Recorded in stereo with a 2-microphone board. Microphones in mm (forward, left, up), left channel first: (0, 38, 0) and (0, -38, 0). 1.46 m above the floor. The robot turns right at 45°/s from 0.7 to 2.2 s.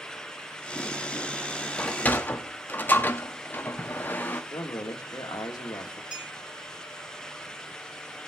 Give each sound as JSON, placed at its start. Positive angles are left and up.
{"t": 1.8, "sound": "a sliding door", "side_deg": 15, "distance_m": 1.0}
{"t": 4.5, "sound": "a man speaking", "side_deg": 60, "distance_m": 2.0}
{"t": 6.1, "sound": "a clink", "side_deg": -10, "distance_m": 3.5}